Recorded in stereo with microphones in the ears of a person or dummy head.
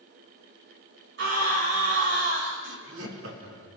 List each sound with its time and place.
1.2 s a scream: 70° right (ahead or behind), 3 m
2.6 s laughter: 75° right (ahead or behind), 4 m